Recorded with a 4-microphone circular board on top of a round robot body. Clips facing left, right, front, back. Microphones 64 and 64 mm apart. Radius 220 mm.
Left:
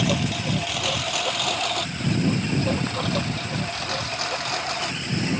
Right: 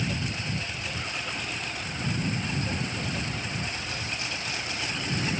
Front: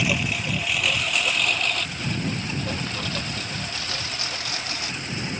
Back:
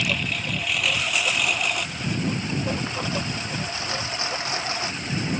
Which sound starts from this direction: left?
A lawn mower, at 0.0 s.